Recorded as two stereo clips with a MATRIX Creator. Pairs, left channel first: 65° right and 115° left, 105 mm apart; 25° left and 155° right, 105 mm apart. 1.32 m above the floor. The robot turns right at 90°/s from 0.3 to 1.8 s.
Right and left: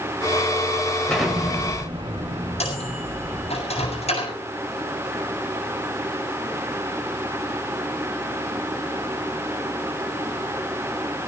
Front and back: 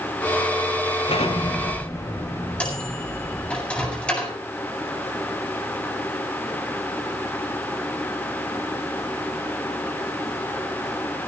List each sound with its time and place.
1.1 s an explosion: 10° left, 6.5 m; by 3.5 s 75° left, 6.5 m
2.6 s a microwave: 55° right, 7.5 m